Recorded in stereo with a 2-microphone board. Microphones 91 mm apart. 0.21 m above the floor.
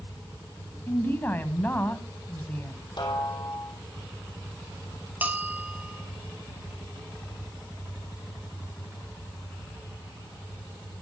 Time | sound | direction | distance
0.9 | a woman speaking | 20° left (ahead or behind) | 1.4 m
3.0 | a snare drum | 60° left (ahead or behind) | 3 m
5.2 | a bell | 15° right (ahead or behind) | 1.2 m